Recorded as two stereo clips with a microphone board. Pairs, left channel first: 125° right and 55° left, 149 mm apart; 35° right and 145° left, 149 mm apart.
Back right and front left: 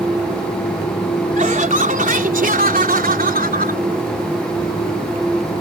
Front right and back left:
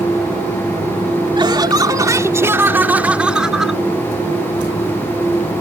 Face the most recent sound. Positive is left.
turn(degrees=55)